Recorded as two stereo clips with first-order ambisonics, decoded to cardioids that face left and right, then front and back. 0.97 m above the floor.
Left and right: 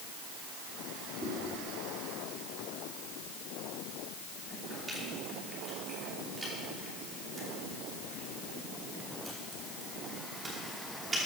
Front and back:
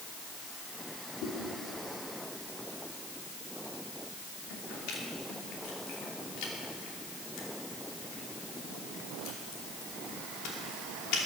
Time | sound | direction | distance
1.2 | chewing | 15° right | 2.5 m